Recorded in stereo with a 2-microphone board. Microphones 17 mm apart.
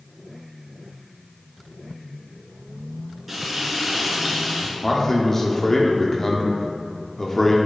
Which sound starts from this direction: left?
A man speaking, at 4.8 s.